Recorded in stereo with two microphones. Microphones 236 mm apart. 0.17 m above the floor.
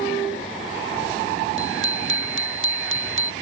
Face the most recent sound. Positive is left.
turn(degrees=-60)  # may be behind; listen again after turning